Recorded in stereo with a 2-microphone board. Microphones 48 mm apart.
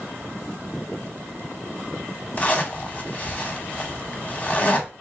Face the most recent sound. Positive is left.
turn(degrees=25)  # may be behind; listen again after turning